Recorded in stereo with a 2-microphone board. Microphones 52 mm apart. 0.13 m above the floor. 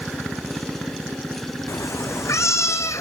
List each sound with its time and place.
1.7 s a cat meowing: 65° left (ahead or behind), 1.8 m